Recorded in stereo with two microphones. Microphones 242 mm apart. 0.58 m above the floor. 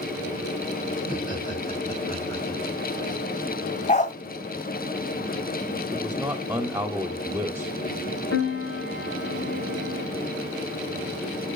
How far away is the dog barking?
About 1.5 m.